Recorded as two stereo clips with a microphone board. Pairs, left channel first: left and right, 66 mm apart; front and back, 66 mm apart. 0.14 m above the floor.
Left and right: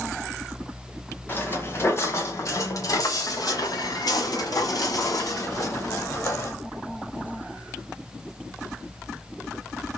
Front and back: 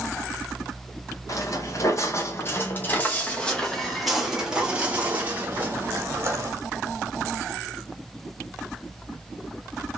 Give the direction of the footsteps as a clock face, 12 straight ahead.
11 o'clock.